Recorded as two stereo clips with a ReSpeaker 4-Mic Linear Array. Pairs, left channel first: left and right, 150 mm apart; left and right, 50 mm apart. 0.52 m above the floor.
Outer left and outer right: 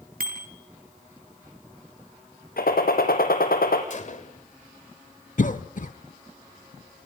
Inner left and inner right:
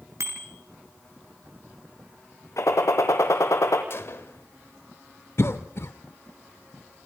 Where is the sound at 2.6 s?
80° left, 3 m.